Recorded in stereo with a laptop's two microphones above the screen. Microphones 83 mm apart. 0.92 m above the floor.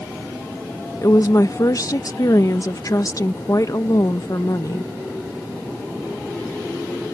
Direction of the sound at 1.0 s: 45° left (ahead or behind).